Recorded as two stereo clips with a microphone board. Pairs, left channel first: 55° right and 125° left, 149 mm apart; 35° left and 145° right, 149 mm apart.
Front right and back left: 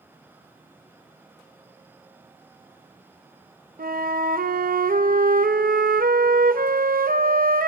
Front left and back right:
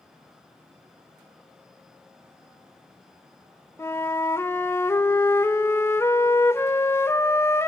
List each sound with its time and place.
3.8 s a flute: 110° left, 0.8 m